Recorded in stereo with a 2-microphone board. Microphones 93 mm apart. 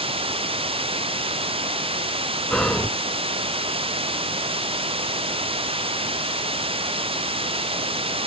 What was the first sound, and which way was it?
Running water, 80° right.